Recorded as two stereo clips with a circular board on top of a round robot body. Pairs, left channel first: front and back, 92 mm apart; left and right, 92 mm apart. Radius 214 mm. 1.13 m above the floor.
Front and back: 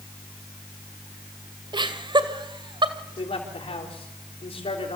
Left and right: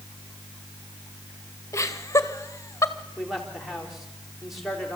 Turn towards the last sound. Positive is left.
turn(degrees=0)